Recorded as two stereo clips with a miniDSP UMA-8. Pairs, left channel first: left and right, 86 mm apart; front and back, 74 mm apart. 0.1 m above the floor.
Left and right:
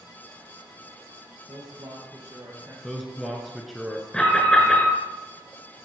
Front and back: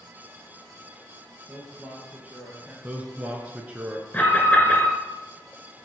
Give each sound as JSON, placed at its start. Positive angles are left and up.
{"t": 1.5, "sound": "a man speaking", "azimuth_deg": -105, "distance_m": 1.9}
{"t": 2.8, "sound": "a man speaking", "azimuth_deg": 180, "distance_m": 1.1}
{"t": 4.1, "sound": "an alarm", "azimuth_deg": 25, "distance_m": 2.0}